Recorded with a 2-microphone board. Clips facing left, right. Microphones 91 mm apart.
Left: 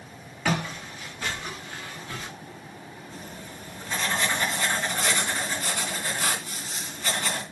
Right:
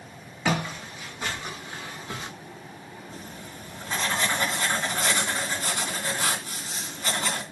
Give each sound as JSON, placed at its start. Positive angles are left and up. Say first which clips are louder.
{"t": 0.5, "sound": "footsteps", "louder": "right 1 dB", "side_deg": -15, "distance_m": 3.0}
{"t": 3.1, "sound": "writing", "louder": "left 1 dB", "side_deg": -25, "distance_m": 3.0}